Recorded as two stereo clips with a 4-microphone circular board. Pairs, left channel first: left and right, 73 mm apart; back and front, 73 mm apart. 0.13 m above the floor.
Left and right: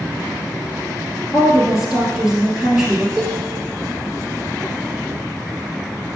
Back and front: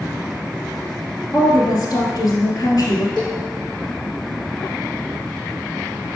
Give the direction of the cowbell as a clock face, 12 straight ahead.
5 o'clock.